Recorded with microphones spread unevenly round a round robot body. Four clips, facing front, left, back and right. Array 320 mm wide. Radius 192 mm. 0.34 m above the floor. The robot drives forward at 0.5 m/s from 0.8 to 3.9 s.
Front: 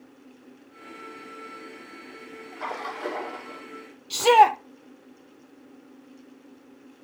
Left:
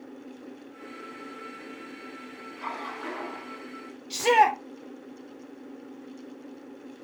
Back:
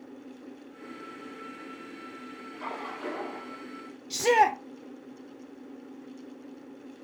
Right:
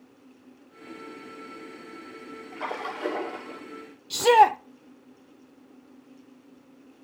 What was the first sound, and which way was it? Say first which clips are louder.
A splash: right 3 dB, front 5 dB; 55° right.